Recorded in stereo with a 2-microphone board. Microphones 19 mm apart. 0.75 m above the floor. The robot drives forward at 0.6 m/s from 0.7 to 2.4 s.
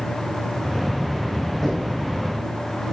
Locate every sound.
1.6 s knocking: 15° left (ahead or behind), 6.5 m